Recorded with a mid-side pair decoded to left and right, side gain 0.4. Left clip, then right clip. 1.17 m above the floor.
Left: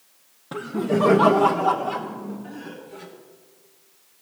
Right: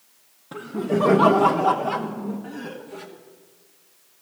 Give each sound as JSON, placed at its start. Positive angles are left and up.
{"t": 0.5, "sound": "laughter", "azimuth_deg": 35, "distance_m": 1.0}